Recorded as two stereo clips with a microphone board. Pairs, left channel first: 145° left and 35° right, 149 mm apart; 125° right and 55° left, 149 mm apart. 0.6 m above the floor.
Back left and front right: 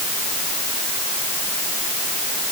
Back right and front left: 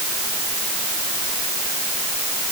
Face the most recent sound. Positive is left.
No sound to turn to.